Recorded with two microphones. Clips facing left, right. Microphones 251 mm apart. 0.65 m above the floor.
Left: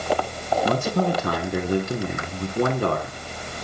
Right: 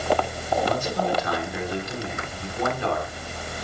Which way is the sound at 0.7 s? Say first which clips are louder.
Left 6 dB; 55° left (ahead or behind).